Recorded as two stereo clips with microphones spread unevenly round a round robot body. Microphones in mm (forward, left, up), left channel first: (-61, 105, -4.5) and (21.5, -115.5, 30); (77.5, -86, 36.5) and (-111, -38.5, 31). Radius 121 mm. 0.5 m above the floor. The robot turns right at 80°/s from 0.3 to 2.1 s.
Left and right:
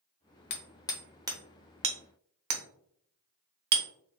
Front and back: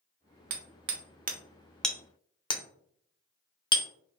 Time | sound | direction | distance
0.5 | hammering | 150° left | 0.8 m